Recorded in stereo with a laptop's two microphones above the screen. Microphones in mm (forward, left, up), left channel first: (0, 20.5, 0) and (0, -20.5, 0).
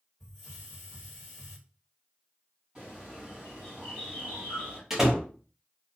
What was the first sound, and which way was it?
A hiss, 5° left (ahead or behind).